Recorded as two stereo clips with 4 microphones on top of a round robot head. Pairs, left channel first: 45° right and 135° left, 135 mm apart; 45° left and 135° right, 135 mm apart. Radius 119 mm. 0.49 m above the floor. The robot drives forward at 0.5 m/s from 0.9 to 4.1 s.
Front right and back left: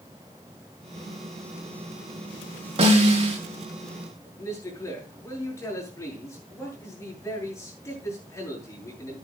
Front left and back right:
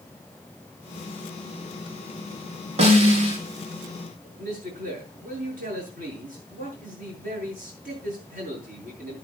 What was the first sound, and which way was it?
A snare drum, straight behind.